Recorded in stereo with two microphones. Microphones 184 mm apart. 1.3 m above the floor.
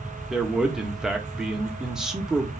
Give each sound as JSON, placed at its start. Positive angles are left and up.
{"t": 0.3, "sound": "a man speaking", "side_deg": -5, "distance_m": 1.2}